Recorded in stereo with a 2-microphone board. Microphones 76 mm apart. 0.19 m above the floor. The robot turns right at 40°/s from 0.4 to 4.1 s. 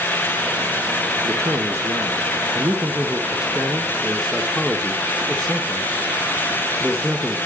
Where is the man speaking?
105° right, 2 m; by 7.4 s 10° left, 2 m.